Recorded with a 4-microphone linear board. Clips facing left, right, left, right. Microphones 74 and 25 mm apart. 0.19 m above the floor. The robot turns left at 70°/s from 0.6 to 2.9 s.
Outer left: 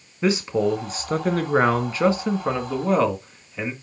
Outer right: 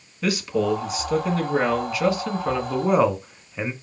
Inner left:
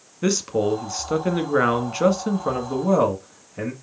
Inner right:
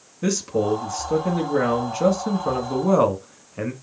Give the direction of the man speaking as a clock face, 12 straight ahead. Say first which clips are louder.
Outer left 2 dB, inner left 1 dB; 7 o'clock.